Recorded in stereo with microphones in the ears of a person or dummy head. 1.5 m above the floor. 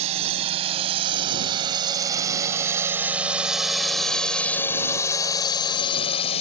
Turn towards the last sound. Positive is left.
turn(degrees=40)  # may be behind; listen again after turning